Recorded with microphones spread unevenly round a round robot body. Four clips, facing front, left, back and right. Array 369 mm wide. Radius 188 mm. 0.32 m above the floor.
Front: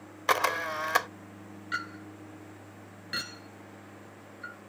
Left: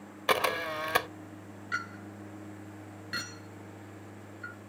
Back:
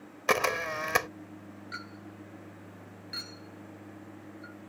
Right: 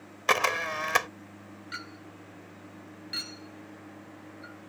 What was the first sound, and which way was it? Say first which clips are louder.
A camera shutter: right 2 dB, front 1 dB; 170° left.